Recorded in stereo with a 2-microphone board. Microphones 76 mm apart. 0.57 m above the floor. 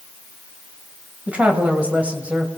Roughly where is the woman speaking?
Centre.